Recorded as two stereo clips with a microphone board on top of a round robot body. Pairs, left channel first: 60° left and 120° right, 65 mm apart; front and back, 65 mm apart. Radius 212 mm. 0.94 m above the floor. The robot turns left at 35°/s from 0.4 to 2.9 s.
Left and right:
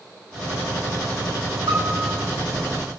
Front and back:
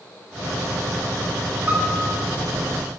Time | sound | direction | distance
1.7 | a piano | 115° right | 9 m